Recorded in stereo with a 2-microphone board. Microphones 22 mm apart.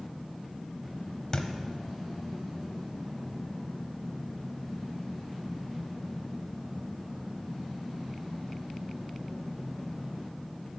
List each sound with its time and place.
1.3 s a thud: 30° left (ahead or behind), 0.7 m